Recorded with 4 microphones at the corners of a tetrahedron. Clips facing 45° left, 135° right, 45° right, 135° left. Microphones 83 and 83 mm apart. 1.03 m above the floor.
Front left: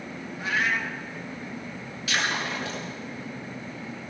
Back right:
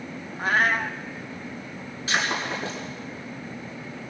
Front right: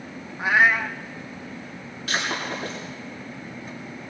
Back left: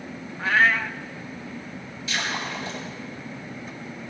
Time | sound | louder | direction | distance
0.4 | a cat meowing | back right 4 dB, front right 1 dB | 115° right | 0.6 m
2.1 | breaking glass | back right 2 dB, front right 2 dB | 75° right | 8 m